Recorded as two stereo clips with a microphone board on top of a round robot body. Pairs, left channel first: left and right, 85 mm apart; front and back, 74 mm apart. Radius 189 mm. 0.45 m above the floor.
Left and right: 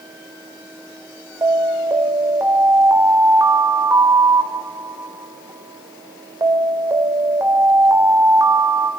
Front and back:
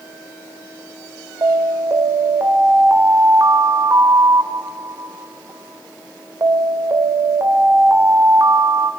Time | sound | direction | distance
1.4 | an alarm | 140° right | 3.5 m